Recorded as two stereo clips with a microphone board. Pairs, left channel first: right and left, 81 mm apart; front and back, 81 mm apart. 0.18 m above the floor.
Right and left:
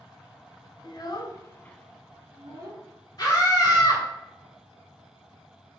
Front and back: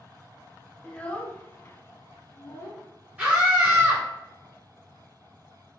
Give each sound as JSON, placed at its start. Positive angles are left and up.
{"t": 0.8, "sound": "a child speaking", "azimuth_deg": -75, "distance_m": 1.2}
{"t": 3.2, "sound": "a scream", "azimuth_deg": -105, "distance_m": 2.5}